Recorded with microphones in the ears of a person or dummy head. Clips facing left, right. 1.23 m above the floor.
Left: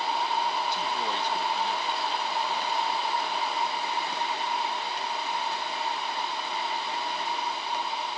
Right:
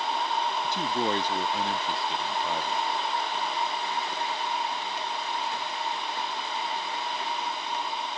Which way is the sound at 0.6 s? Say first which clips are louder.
Right 3 dB; 50° right (ahead or behind).